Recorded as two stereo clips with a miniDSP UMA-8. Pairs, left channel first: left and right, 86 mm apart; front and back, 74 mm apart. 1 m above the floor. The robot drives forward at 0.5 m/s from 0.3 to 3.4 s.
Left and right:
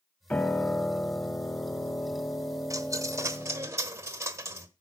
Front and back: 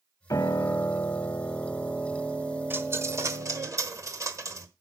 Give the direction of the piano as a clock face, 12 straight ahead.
11 o'clock.